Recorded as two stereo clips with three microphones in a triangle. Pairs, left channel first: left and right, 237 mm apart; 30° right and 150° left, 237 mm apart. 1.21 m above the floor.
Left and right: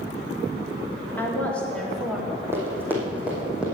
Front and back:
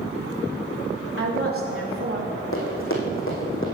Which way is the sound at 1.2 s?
170° left.